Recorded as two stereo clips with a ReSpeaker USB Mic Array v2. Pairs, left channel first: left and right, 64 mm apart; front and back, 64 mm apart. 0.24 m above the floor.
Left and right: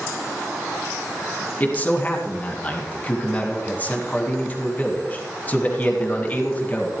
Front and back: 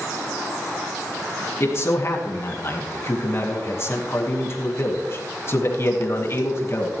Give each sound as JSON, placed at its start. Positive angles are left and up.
{"t": 1.6, "sound": "a man speaking", "azimuth_deg": 35, "distance_m": 2.5}